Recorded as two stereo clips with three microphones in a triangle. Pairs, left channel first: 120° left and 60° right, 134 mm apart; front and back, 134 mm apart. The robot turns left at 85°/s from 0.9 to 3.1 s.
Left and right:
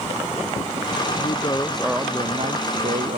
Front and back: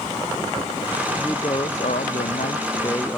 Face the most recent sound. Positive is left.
turn(degrees=-80)